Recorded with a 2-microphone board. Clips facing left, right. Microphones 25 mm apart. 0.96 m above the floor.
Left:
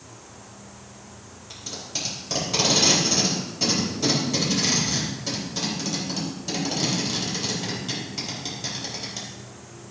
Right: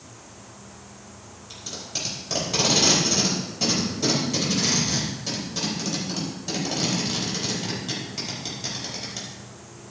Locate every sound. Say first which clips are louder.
1.5 s tape being pulled: even; centre (ahead or behind), 4.5 m